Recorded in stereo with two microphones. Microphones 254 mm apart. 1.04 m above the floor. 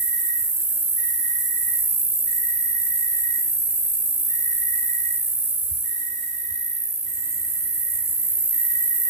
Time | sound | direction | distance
0.0 | an insect | 75° right (ahead or behind) | 3 m